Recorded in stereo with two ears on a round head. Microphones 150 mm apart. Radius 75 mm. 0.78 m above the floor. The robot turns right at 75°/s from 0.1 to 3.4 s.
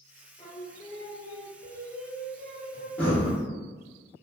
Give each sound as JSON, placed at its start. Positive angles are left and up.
{"t": 0.4, "sound": "singing", "azimuth_deg": 150, "distance_m": 0.8}
{"t": 3.0, "sound": "breathing", "side_deg": 10, "distance_m": 0.7}